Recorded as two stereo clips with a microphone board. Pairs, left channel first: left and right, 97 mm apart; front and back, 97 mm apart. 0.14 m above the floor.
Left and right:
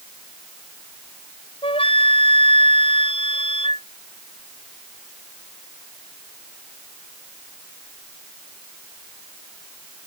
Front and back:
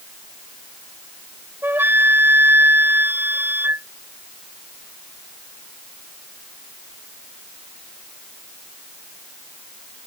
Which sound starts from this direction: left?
A flute, at 1.6 s.